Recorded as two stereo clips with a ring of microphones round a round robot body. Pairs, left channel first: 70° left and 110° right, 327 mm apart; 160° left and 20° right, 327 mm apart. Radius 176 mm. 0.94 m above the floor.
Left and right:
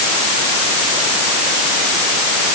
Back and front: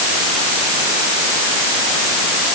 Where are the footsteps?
I don't hear footsteps.